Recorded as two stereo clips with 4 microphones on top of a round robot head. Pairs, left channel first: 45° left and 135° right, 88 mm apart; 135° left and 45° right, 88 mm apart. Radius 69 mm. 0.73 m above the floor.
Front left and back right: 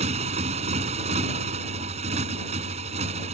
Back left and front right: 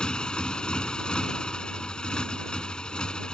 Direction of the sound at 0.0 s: 145° right.